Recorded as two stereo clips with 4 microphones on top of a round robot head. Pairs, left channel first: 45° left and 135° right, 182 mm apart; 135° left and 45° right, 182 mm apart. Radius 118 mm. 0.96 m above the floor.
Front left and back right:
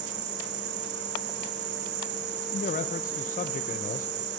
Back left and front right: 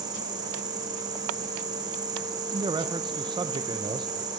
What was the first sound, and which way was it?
An insect, 115° right.